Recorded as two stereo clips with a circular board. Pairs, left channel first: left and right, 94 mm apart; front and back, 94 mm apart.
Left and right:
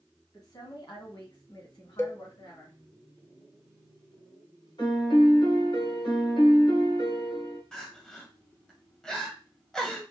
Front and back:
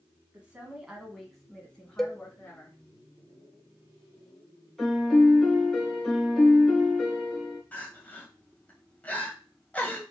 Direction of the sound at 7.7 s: 25° left.